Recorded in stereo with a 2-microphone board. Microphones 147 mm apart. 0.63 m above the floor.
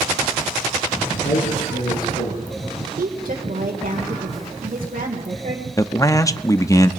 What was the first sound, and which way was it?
A man speaking, 80° left.